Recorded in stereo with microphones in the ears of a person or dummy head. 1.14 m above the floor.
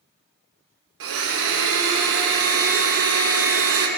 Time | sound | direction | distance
1.0 | a blender | 70° right (ahead or behind) | 0.7 m